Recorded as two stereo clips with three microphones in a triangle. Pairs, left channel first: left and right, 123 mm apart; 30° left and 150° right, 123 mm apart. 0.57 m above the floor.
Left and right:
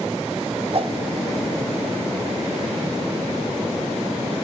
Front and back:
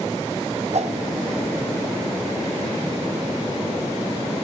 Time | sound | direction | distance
0.7 | a whoosh | 130° right | 0.8 m